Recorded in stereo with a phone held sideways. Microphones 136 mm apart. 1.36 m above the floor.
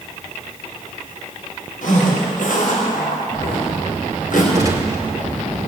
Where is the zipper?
80° left, 6.5 m.